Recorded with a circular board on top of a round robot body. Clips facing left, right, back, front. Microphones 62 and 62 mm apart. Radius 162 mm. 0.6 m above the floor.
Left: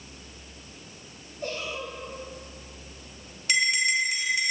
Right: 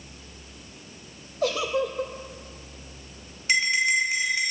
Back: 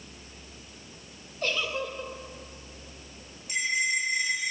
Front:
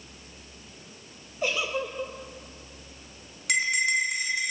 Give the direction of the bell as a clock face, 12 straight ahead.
1 o'clock.